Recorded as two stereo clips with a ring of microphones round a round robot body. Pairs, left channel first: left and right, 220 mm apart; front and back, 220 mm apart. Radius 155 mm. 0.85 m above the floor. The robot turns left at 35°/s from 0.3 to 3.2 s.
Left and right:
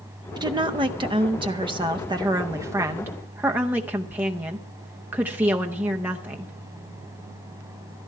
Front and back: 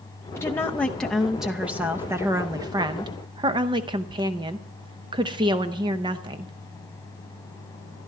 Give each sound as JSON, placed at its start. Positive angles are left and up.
{"t": 0.4, "sound": "a woman speaking", "azimuth_deg": -60, "distance_m": 0.6}